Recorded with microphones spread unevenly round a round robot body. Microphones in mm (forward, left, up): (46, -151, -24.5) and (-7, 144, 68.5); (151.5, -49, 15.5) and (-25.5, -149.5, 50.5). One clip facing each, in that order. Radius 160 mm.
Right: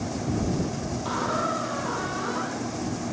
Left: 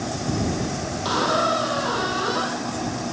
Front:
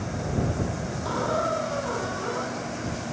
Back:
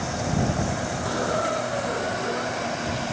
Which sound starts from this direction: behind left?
A squeak, at 1.1 s.